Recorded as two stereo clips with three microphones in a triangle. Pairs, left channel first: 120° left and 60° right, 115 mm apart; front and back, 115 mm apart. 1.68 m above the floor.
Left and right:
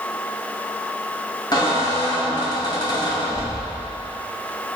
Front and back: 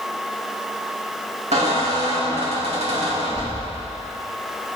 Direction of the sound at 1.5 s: 170° left.